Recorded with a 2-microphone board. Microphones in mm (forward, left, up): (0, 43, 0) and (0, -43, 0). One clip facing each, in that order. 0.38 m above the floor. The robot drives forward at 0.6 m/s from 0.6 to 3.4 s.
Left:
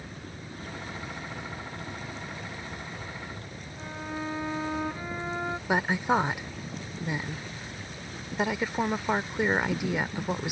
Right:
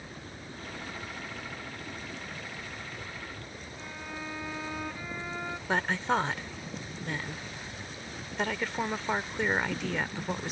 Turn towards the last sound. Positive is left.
turn(degrees=15)  # may be behind; listen again after turning